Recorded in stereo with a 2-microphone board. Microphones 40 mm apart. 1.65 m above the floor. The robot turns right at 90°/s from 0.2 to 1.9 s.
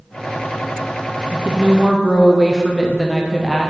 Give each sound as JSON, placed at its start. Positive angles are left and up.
{"t": 1.3, "sound": "a woman speaking", "azimuth_deg": -45, "distance_m": 0.7}